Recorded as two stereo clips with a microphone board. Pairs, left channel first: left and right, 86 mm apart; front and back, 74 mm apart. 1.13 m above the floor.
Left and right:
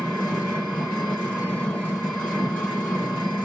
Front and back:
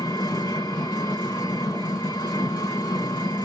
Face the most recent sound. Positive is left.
turn(degrees=10)